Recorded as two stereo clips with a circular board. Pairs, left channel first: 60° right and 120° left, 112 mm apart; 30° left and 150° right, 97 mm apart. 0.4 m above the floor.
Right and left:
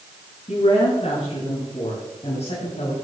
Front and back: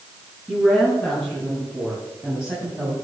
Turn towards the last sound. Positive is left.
turn(degrees=-70)